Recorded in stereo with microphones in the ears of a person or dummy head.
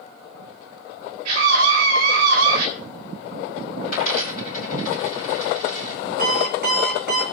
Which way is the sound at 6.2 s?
50° right (ahead or behind).